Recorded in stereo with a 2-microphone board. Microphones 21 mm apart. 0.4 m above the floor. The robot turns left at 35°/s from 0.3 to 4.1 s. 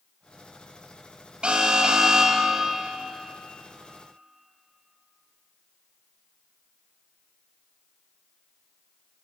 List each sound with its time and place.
1.4 s an alarm: 110° right, 3.5 m; by 2.8 s 155° right, 3.5 m